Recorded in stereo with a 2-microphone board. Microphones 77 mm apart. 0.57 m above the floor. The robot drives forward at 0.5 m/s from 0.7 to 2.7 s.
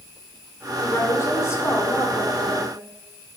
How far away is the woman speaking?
About 2.0 m.